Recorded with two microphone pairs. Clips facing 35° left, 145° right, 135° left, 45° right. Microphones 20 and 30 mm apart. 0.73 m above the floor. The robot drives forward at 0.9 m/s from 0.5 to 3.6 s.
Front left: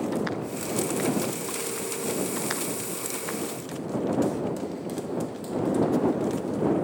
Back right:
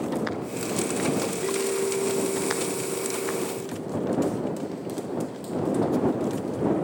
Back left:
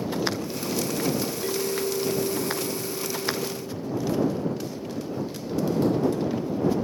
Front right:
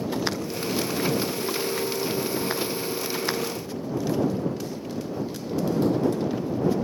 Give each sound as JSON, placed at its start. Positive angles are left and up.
{"t": 1.4, "sound": "a clink", "azimuth_deg": -165}